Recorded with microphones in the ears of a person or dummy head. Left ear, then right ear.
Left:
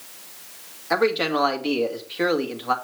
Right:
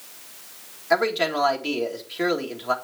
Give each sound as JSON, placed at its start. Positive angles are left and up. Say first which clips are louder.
{"t": 0.9, "sound": "a man speaking", "louder": "even", "side_deg": 0, "distance_m": 1.6}